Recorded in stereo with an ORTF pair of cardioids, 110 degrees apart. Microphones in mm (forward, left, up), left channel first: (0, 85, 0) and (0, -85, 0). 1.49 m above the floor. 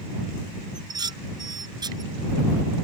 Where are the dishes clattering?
25° right.